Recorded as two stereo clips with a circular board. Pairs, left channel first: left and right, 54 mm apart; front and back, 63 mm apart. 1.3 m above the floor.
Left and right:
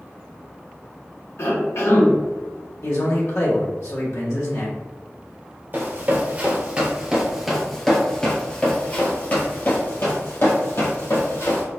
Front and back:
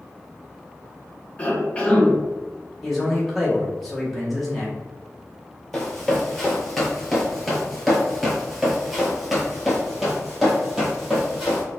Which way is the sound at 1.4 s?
65° left.